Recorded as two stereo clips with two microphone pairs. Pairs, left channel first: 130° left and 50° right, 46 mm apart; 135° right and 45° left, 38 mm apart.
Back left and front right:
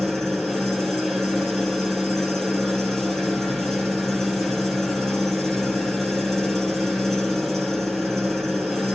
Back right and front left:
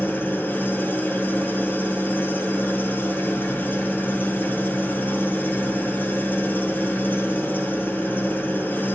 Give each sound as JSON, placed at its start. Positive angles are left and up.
{"t": 0.0, "sound": "an engine running", "azimuth_deg": -150, "distance_m": 2.0}